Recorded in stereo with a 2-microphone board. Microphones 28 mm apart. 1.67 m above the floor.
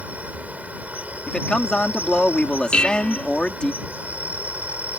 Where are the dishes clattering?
55° left (ahead or behind).